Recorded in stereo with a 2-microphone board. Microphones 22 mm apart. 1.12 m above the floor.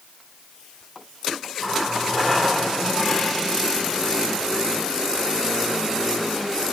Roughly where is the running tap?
Centre.